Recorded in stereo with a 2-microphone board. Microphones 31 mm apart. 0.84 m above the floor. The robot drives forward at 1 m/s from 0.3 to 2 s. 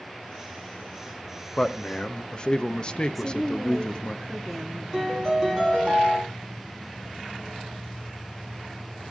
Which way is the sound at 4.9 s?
Centre (ahead or behind).